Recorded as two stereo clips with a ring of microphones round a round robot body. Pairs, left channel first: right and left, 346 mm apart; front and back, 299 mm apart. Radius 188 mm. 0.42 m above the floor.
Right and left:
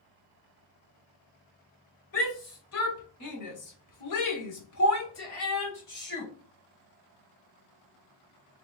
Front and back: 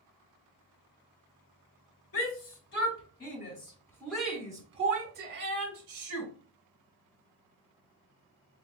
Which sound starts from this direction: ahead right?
A shout, at 2.1 s.